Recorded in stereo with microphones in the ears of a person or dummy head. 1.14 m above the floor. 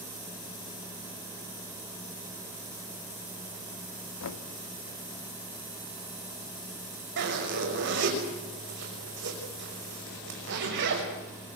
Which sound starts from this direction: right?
A zipper, at 7.2 s.